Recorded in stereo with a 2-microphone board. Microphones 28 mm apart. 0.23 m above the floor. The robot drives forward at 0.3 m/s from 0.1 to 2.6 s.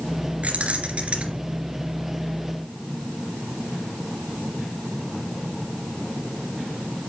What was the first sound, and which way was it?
Keys jangling, 55° right (ahead or behind).